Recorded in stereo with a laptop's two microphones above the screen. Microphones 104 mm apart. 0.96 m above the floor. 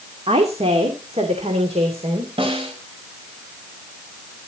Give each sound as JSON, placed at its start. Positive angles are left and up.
{"t": 0.3, "sound": "a woman speaking", "side_deg": -75, "distance_m": 2.0}
{"t": 2.4, "sound": "a snare drum", "side_deg": -60, "distance_m": 4.5}